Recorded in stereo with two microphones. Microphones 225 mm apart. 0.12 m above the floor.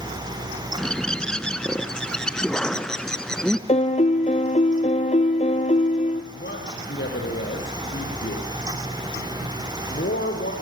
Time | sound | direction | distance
0.8 | a bird | 5° left (ahead or behind) | 0.7 m
3.7 | a piano | 30° left (ahead or behind) | 1.1 m
6.3 | a man speaking | 55° left (ahead or behind) | 4 m